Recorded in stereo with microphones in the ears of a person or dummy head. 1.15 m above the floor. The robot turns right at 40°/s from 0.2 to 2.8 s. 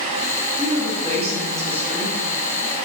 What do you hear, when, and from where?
0.6 s a woman speaking: 55° right, 0.9 m; by 2.2 s 5° left, 0.9 m